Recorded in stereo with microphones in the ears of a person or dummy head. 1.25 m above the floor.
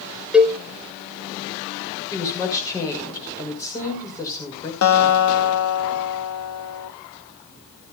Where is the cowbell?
Centre (ahead or behind), 0.8 m.